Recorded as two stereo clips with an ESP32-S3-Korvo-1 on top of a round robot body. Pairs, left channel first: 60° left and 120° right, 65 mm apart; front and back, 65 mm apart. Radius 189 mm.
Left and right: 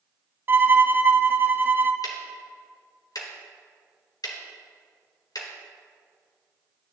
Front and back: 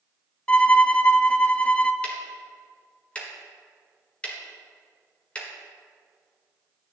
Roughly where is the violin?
Right.